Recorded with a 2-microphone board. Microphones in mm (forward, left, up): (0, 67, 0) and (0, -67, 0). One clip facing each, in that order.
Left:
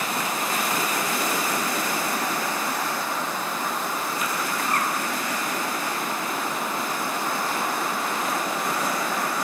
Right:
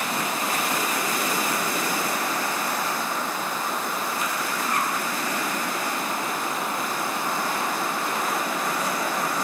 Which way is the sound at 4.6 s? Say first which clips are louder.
Even; 50° left (ahead or behind).